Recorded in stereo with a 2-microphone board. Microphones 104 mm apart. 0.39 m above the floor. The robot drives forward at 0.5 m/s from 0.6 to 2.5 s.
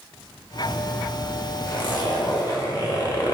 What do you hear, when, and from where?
1.7 s a zipper: 45° left (ahead or behind), 0.7 m; by 3.4 s 40° left (ahead or behind), 0.7 m